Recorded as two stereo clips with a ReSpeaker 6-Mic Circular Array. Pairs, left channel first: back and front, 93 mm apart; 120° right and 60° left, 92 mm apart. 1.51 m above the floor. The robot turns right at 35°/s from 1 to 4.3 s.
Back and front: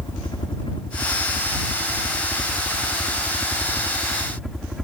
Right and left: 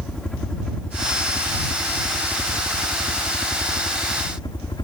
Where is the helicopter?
160° left; by 4.8 s 85° right.